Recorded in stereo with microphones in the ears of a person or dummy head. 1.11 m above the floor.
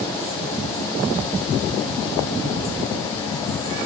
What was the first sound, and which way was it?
Only background noise.